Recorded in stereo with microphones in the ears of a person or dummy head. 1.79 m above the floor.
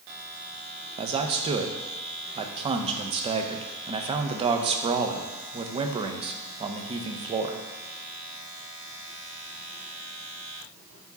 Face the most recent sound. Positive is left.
turn(degrees=-25)  # may be behind; listen again after turning